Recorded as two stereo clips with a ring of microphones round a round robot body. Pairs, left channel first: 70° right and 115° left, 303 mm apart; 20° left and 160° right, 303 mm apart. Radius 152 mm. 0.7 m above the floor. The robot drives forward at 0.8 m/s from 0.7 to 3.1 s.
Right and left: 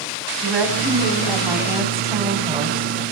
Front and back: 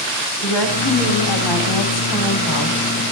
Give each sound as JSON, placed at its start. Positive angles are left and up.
{"t": 0.4, "sound": "a woman speaking", "azimuth_deg": 25, "distance_m": 5.0}